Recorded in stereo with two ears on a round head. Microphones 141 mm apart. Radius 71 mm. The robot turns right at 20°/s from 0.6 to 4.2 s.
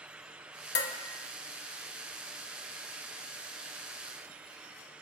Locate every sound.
0.8 s dishes clattering: 75° left (ahead or behind), 1.7 m